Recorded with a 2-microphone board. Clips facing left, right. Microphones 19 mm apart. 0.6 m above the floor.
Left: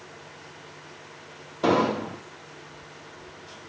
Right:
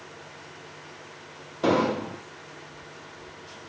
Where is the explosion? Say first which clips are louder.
Left 1 dB; 10° left (ahead or behind), 1.1 m.